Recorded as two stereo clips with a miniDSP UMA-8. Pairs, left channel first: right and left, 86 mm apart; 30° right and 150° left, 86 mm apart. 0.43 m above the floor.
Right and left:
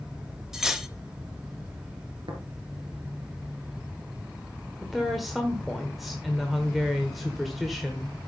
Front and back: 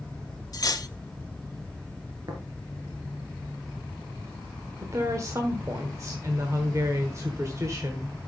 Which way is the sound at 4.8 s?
Straight behind.